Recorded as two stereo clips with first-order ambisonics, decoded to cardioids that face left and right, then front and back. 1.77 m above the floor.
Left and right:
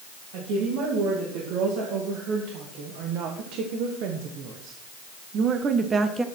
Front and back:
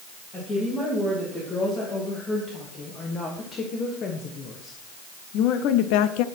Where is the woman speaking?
75° right, 3.5 m; by 6.2 s 10° right, 0.8 m.